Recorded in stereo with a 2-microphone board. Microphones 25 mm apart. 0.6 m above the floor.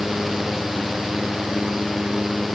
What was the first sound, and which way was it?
Only background noise.